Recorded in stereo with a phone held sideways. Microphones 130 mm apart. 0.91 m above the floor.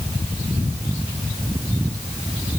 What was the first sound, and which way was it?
Only background noise.